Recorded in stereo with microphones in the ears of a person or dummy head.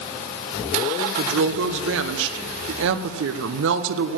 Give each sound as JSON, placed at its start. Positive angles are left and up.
{"t": 1.2, "sound": "a woman speaking", "side_deg": -65, "distance_m": 0.8}